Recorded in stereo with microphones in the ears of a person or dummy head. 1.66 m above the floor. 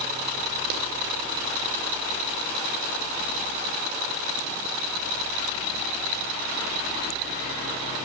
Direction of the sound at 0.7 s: 55° right (ahead or behind).